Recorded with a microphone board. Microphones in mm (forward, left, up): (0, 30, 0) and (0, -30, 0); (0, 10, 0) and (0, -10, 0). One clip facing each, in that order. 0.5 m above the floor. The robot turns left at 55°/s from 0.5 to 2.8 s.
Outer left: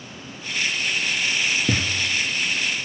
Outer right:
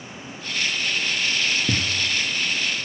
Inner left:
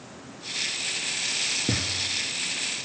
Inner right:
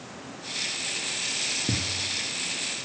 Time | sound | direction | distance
1.7 | a thud | 30° left (ahead or behind) | 0.8 m